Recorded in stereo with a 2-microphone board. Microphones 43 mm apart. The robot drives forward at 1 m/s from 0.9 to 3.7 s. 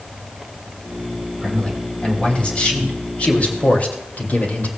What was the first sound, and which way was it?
A man speaking, 20° left (ahead or behind).